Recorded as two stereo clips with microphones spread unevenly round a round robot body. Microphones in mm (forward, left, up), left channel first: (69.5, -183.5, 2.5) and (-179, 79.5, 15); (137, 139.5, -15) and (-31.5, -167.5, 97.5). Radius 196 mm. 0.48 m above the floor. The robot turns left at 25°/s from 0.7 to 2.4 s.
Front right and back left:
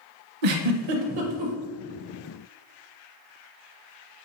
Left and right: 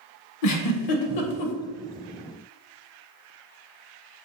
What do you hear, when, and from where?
0.4 s a giggle: 105° left, 0.5 m; by 1.5 s 85° left, 0.5 m